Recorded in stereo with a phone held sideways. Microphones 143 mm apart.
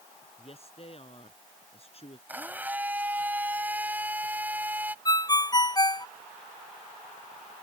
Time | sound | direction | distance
0.4 | a woman speaking | 45° left (ahead or behind) | ?
2.3 | a blender | 10° right (ahead or behind) | ?
5.0 | a ringtone | 25° left (ahead or behind) | ?